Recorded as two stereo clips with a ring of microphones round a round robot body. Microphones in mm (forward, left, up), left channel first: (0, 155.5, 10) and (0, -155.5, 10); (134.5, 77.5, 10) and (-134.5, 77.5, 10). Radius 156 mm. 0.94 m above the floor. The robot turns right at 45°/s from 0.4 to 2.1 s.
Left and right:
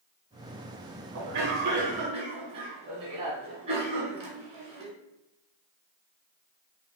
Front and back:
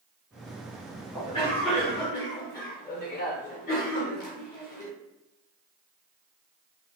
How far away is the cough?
About 1.0 m.